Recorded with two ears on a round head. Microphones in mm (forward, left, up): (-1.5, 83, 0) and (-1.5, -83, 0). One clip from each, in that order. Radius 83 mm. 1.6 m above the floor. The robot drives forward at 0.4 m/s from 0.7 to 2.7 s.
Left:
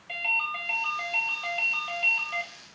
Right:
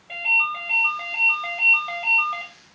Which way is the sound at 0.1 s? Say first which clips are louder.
Right 7 dB; 60° left (ahead or behind).